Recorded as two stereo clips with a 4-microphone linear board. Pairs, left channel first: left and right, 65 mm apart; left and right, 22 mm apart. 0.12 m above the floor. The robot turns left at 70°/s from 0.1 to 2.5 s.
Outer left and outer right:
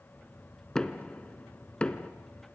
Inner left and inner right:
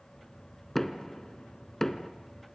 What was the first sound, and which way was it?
Knocking, 10° left (ahead or behind).